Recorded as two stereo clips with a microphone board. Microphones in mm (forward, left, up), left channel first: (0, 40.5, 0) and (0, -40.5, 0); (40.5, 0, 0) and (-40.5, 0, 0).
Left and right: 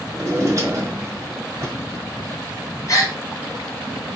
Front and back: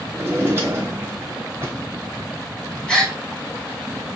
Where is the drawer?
130° right, 1.0 m.